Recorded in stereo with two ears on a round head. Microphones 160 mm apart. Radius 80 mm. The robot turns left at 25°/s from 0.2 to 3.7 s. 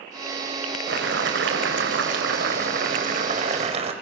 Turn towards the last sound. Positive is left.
turn(degrees=-140)